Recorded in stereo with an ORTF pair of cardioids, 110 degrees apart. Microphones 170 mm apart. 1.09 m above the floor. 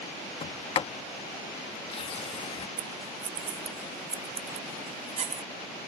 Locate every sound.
0.4 s a sliding door: 35° left
2.8 s scissors: 45° right